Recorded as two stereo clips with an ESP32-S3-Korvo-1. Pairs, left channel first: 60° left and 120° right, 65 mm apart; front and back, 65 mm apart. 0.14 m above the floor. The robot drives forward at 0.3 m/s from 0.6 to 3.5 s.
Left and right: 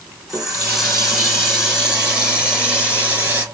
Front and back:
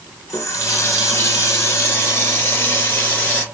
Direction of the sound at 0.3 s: 35° right.